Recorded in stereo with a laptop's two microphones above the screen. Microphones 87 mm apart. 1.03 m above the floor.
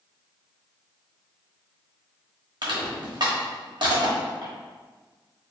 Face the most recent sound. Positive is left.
turn(degrees=-60)  # may be behind; listen again after turning